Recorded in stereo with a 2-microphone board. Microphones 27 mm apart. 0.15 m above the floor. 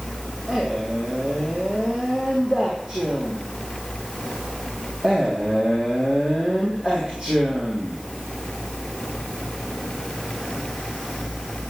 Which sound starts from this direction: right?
A man speaking, at 0.5 s.